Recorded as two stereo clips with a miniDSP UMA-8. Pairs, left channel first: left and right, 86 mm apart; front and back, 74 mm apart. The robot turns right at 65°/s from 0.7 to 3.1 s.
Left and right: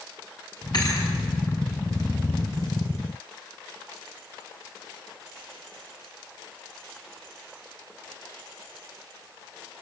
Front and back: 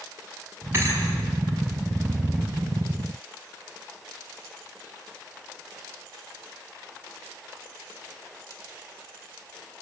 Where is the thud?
125° left, 5.5 m; by 1.1 s 145° left, 5.5 m.